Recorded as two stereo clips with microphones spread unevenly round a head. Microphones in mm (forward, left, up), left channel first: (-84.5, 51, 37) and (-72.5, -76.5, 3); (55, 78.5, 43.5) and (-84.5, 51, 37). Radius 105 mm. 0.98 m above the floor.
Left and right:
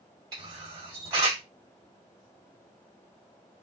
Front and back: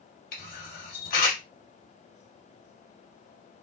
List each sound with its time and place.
0.3 s a camera shutter: 20° right, 1.4 m